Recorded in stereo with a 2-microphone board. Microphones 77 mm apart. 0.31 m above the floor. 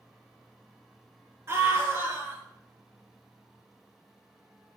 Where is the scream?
35° right (ahead or behind), 4 m.